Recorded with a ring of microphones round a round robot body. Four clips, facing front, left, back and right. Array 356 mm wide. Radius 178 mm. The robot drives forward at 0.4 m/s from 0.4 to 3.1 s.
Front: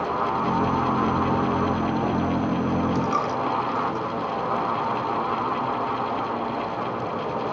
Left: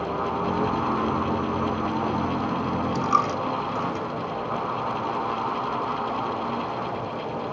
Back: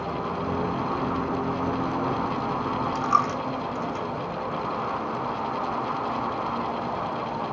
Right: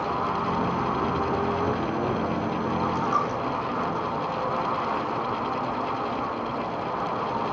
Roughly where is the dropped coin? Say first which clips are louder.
Left 2 dB, even; left.